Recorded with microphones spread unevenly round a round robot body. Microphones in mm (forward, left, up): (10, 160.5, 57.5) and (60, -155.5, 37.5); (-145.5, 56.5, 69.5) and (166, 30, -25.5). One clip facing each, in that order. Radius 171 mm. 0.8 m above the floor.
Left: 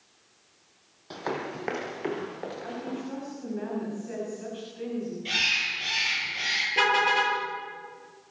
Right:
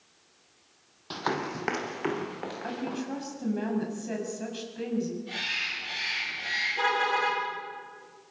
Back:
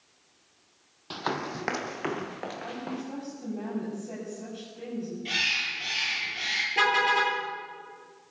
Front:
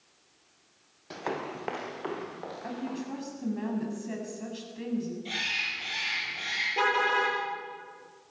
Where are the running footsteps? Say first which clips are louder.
Right 1 dB, back 1 dB; 145° right, 1.1 m; by 3.0 s 155° right, 3.5 m.